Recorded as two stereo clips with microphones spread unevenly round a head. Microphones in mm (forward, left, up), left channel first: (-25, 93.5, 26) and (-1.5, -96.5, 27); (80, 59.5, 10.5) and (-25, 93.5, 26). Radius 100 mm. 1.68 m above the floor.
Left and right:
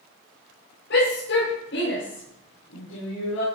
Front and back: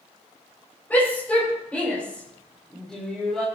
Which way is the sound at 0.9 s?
60° left.